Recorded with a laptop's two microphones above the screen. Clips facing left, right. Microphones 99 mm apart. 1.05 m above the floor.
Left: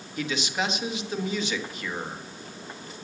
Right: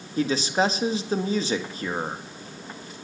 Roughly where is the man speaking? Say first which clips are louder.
Right 6 dB; right.